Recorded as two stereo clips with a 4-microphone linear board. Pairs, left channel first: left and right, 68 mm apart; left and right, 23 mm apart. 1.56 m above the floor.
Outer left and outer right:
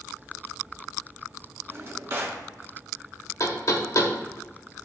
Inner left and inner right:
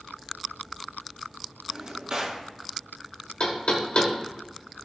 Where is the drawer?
40° right (ahead or behind), 1.9 m.